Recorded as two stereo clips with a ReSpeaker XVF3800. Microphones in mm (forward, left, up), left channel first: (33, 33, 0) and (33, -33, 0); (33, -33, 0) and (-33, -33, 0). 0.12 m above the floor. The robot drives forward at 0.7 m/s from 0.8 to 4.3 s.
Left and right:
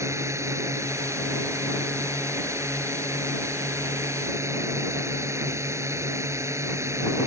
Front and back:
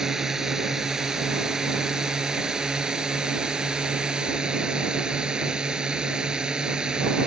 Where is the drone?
100° right; by 7.3 s 105° right.